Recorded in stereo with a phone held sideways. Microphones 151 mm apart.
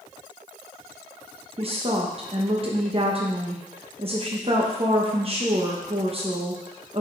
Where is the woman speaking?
40° right (ahead or behind), 1.0 m.